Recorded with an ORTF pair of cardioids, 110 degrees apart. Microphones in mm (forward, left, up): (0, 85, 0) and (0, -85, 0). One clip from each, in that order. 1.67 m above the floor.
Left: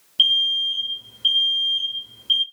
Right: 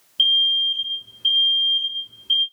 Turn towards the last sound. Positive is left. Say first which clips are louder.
# right 1 dB
turn(degrees=20)